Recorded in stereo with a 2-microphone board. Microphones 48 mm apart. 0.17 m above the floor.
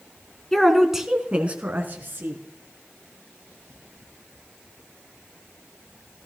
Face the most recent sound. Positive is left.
turn(degrees=-55)  # may be behind; listen again after turning